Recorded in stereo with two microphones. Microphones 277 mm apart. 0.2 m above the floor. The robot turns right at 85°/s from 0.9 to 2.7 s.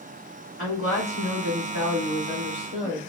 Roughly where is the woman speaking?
Left.